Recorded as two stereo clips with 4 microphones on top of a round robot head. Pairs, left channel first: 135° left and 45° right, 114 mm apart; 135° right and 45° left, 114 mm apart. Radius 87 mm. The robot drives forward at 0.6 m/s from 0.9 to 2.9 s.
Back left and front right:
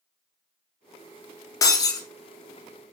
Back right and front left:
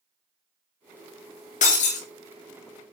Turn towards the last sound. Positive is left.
turn(degrees=-170)